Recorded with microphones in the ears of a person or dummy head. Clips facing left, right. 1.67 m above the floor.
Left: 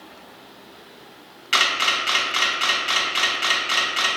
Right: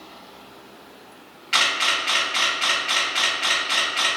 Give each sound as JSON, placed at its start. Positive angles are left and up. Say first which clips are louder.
{"t": 1.5, "sound": "a camera shutter", "louder": "left 1 dB", "side_deg": 55, "distance_m": 0.8}